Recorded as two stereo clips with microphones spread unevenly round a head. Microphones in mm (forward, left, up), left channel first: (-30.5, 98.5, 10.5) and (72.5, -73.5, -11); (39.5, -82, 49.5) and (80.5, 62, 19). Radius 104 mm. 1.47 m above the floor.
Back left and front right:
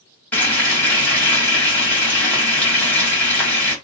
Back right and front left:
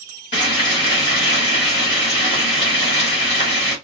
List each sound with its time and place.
0.3 s frying: 160° right, 2 m